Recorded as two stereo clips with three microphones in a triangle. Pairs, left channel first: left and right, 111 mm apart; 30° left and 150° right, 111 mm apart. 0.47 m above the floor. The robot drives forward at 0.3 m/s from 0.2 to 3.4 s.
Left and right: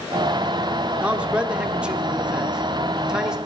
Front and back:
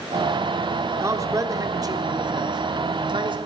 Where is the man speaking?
155° right, 1.0 m; by 3.4 s 170° right, 1.4 m.